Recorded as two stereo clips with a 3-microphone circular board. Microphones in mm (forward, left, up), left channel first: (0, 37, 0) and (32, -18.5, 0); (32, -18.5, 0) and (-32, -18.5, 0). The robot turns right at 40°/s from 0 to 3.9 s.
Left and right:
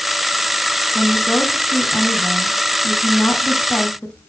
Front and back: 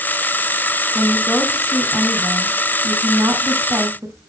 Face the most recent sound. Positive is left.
turn(degrees=-175)